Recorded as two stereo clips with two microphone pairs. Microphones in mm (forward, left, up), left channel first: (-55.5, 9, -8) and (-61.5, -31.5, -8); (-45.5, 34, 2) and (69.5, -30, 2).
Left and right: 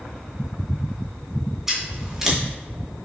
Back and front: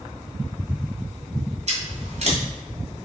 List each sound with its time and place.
1.7 s scissors: 20° right, 2 m